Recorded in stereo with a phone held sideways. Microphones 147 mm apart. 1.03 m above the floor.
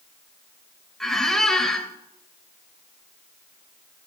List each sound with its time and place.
1.0 s a squeak: 5° left (ahead or behind), 0.8 m